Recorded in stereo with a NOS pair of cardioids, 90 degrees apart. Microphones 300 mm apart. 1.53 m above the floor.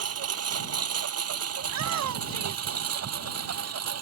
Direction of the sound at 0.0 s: 55° right.